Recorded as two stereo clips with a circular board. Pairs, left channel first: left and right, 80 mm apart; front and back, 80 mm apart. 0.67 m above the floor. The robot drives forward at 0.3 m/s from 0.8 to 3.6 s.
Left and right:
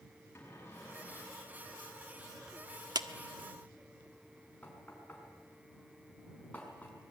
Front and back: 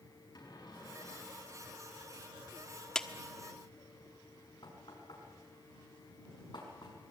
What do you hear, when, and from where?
0.3 s a cupboard door: 30° left, 7 m
3.0 s a clap: 80° right, 1.1 m
4.6 s knocking: 20° left, 5.5 m